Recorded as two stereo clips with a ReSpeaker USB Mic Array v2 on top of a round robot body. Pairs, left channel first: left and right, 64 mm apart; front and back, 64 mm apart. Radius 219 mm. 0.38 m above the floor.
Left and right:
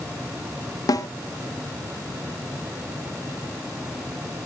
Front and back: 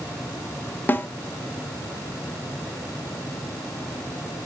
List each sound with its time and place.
0.9 s a snare drum: 60° left, 0.8 m